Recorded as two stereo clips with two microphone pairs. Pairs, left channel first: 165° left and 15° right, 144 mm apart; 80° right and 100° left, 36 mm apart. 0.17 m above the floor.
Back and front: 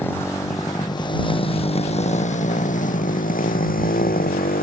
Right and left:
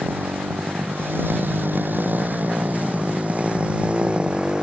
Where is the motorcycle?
90° left; by 4.6 s 160° left.